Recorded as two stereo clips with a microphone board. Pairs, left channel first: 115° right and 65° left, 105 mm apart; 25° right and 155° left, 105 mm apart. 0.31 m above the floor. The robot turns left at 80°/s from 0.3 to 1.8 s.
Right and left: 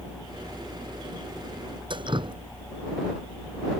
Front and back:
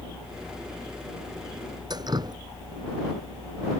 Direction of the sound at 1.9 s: 110° left.